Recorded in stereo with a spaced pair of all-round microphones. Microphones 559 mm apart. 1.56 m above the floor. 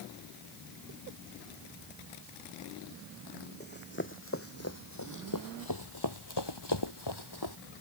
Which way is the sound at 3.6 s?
15° left (ahead or behind).